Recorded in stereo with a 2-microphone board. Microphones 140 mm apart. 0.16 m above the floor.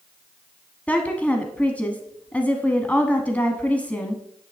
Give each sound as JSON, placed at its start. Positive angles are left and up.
{"t": 0.9, "sound": "a woman speaking", "side_deg": 10, "distance_m": 1.0}